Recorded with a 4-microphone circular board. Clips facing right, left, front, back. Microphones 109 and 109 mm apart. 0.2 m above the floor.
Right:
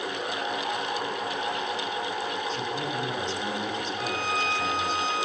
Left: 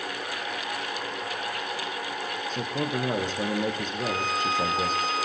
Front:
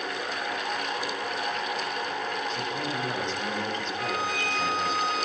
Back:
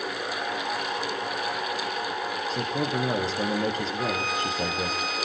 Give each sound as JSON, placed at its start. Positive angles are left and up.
{"t": 2.5, "sound": "a man speaking", "azimuth_deg": 130, "distance_m": 4.5}
{"t": 4.0, "sound": "a violin", "azimuth_deg": -115, "distance_m": 5.5}